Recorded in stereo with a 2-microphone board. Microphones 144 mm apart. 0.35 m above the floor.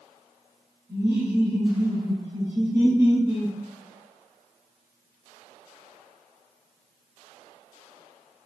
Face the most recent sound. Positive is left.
turn(degrees=-15)  # may be behind; listen again after turning